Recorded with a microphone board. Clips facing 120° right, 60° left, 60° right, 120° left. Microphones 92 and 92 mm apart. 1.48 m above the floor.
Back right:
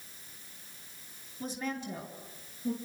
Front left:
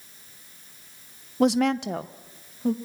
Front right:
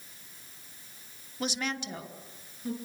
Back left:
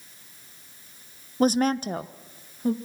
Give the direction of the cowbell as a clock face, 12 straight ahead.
I don't hear a cowbell.